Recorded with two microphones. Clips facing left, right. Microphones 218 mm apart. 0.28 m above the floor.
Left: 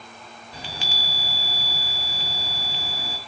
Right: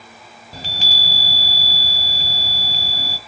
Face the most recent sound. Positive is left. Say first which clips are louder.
# right 3 dB
turn(degrees=-40)  # may be behind; listen again after turning